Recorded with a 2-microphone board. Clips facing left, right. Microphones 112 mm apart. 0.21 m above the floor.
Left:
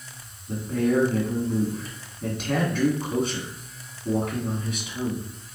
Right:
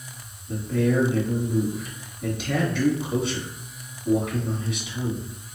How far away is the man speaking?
About 1.8 m.